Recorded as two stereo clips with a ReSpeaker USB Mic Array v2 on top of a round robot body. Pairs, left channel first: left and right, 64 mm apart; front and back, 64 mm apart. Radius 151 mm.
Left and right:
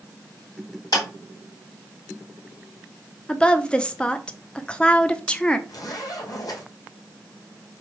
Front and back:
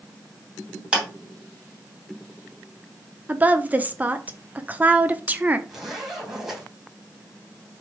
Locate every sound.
0.9 s a clap: 105° left, 2.5 m
3.3 s a woman speaking: 150° left, 1.1 m
5.7 s a zipper: 100° left, 3.5 m